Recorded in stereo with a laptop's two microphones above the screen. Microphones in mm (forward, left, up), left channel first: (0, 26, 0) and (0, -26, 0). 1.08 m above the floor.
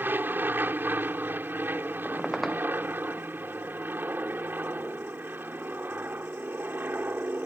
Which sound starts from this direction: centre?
A squeak, at 2.0 s.